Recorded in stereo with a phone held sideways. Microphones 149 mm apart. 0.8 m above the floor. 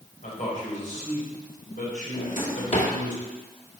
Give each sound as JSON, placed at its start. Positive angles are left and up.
{"t": 0.2, "sound": "a man speaking", "side_deg": 60, "distance_m": 4.0}
{"t": 2.1, "sound": "a drawer", "side_deg": 55, "distance_m": 1.7}